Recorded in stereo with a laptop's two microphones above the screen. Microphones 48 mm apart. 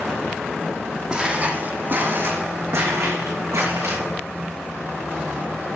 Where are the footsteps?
20° right (ahead or behind), 2.5 m; by 4.0 s 75° right (ahead or behind), 5 m.